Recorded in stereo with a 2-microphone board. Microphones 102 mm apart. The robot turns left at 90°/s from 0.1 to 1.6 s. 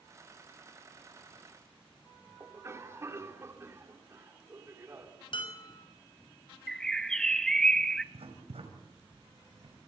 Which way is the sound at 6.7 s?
5° left (ahead or behind).